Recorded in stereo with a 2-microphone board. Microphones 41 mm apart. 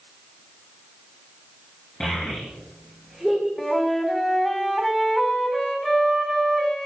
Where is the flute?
5° left (ahead or behind), 2.5 m.